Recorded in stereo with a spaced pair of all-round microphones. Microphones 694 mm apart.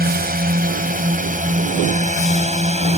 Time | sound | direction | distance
0.0 | a drone | 15° right (ahead or behind) | ?